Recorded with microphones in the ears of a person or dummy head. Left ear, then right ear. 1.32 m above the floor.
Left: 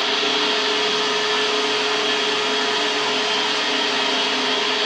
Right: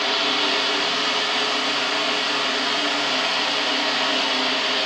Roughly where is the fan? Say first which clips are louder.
Left 1 dB; centre.